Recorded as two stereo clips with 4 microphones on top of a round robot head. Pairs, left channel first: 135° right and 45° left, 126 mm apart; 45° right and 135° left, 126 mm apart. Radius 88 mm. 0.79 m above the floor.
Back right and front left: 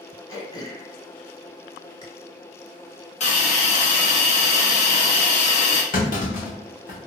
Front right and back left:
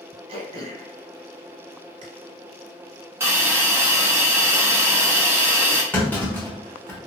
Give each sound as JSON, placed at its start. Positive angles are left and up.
{"t": 0.3, "sound": "throat clearing", "azimuth_deg": 170, "distance_m": 0.8}
{"t": 3.2, "sound": "a hiss", "azimuth_deg": -155, "distance_m": 0.9}
{"t": 5.9, "sound": "a clunk", "azimuth_deg": -120, "distance_m": 1.1}